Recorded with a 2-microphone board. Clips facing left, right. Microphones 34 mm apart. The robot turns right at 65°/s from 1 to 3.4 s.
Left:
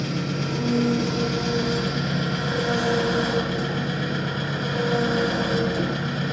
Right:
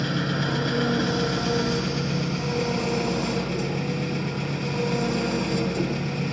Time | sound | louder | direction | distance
0.0 | an engine running | right 1 dB | 40° right | 4.5 m